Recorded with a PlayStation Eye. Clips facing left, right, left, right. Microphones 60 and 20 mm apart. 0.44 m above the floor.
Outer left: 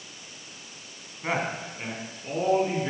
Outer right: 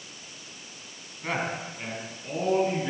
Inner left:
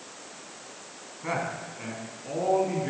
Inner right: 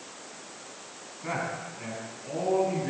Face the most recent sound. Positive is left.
turn(degrees=10)  # may be behind; listen again after turning